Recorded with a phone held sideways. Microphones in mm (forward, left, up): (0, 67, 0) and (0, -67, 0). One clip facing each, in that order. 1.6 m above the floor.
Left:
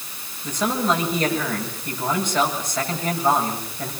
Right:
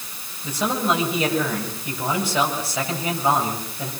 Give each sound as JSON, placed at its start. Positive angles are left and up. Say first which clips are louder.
{"t": 0.4, "sound": "a man speaking", "louder": "left 1 dB", "side_deg": -10, "distance_m": 8.0}